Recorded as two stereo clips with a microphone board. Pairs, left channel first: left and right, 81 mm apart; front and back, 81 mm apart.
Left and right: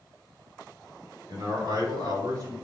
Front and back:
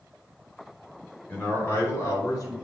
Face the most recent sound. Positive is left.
turn(degrees=-45)